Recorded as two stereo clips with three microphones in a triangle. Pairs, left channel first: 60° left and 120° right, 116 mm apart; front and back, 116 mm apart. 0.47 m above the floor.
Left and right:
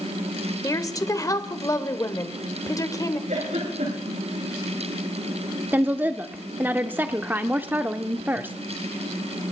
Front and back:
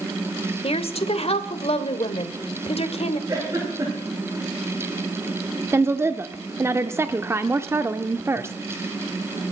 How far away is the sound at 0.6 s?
About 1.5 m.